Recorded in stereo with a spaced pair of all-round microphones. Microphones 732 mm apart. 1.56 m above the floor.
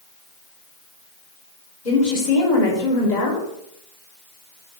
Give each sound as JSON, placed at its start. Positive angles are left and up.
{"t": 1.9, "sound": "a woman speaking", "side_deg": 70, "distance_m": 1.2}